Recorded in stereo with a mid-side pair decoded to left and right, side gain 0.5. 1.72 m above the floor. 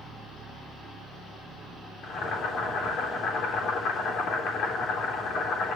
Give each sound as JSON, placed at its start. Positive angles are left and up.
{"t": 2.0, "sound": "boiling", "azimuth_deg": 65, "distance_m": 3.5}